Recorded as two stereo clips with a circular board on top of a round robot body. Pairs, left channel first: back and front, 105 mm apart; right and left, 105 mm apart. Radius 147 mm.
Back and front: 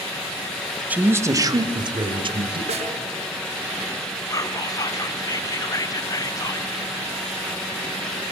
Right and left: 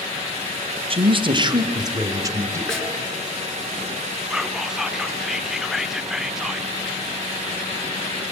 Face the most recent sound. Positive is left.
turn(degrees=170)